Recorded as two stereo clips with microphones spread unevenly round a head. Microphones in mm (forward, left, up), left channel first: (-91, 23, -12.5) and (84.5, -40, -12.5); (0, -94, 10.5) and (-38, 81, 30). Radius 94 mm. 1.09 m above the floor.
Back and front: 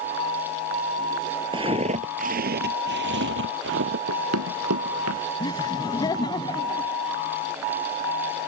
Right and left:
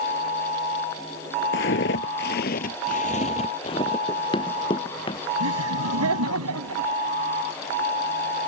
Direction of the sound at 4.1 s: 10° right.